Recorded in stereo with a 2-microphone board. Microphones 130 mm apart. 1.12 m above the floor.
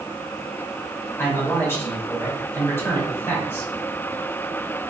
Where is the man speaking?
20° left (ahead or behind), 2.5 m.